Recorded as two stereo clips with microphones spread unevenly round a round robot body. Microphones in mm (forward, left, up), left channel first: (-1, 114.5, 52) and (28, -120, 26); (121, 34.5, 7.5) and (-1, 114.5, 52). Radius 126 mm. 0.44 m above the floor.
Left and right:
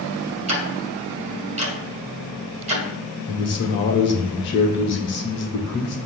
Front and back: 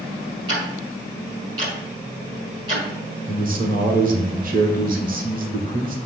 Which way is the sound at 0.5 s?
135° right.